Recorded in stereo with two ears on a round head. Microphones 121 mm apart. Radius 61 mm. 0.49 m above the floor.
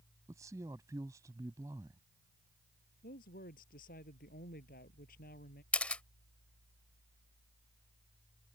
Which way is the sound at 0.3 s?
25° right (ahead or behind).